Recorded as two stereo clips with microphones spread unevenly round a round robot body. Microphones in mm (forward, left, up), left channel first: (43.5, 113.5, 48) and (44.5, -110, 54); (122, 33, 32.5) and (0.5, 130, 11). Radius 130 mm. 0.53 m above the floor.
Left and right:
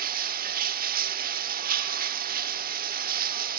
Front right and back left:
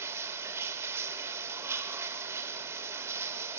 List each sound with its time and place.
0.0 s running water: 145° right, 1.0 m